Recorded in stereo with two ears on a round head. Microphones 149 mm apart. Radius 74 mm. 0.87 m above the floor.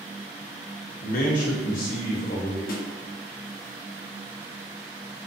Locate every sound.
1.0 s a man speaking: 55° left (ahead or behind), 0.9 m; by 2.6 s 45° left (ahead or behind), 1.2 m
2.7 s a snare drum: 55° left (ahead or behind), 0.8 m